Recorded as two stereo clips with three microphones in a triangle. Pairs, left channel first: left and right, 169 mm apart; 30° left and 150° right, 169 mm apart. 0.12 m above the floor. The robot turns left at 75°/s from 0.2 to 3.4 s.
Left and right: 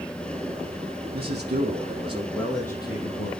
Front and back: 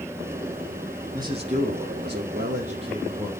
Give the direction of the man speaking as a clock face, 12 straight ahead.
3 o'clock.